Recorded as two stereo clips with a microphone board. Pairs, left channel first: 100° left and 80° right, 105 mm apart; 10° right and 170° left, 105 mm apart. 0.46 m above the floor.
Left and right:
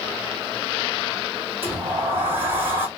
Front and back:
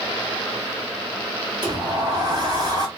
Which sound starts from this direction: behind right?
A sliding door, at 1.6 s.